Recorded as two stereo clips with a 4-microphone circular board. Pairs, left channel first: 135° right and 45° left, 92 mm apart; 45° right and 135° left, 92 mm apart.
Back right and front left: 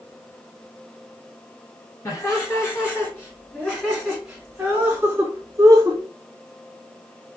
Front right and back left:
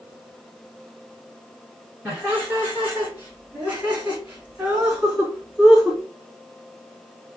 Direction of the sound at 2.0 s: 170° right.